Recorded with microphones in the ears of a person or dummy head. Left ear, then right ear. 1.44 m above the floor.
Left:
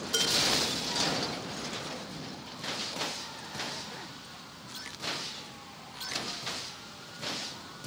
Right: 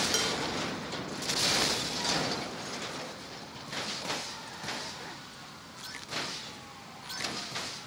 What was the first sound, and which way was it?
Dishes clattering, 20° right (ahead or behind).